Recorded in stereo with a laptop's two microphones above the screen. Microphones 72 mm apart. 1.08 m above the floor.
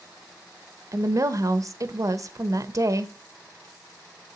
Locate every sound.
0.9 s a woman speaking: 45° right (ahead or behind), 0.7 m